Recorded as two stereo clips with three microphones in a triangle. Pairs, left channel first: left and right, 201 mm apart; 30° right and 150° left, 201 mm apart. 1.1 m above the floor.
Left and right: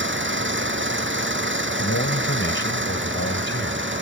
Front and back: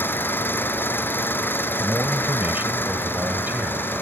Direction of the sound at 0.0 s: 110° right.